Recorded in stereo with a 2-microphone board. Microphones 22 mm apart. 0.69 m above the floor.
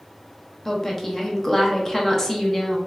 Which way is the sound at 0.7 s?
15° left (ahead or behind).